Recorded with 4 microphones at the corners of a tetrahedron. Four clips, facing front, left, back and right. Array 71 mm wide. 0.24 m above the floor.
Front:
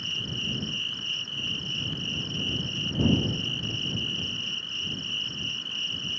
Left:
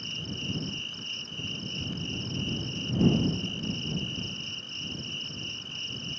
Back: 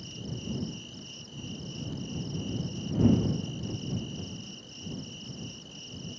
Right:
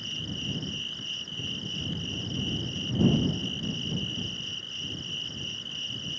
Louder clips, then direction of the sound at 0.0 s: Right 1 dB, front 8 dB; 10° left.